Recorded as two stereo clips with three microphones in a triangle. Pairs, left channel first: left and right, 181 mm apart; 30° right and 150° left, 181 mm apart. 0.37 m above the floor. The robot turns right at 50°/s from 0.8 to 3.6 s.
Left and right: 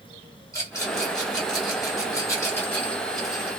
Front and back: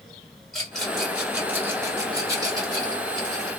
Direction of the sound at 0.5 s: 55° left.